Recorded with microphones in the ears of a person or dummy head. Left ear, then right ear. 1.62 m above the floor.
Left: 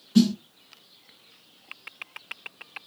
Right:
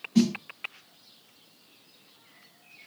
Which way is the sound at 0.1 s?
45° left (ahead or behind).